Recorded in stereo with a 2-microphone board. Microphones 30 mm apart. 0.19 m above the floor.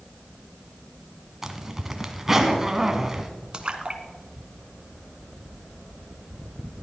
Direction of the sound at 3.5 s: 30° right (ahead or behind).